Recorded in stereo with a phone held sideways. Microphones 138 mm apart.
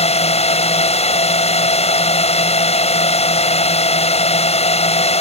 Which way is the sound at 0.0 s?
50° left (ahead or behind).